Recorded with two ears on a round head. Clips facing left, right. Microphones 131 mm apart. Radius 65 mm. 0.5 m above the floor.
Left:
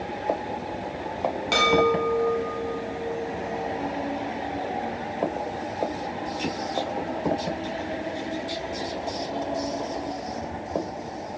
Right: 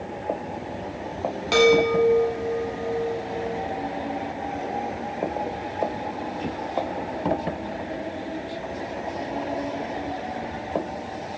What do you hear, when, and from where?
1.5 s a chime: centre (ahead or behind), 0.7 m